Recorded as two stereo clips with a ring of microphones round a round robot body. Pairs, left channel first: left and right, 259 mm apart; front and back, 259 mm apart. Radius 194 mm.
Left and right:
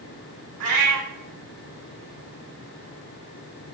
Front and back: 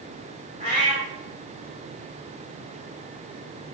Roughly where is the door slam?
I don't hear a door slam.